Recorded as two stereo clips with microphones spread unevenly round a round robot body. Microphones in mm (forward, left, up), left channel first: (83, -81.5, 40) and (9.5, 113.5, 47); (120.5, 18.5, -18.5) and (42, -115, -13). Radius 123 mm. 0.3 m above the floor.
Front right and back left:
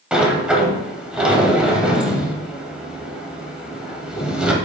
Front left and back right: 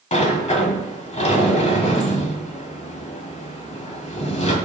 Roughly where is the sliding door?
Ahead left.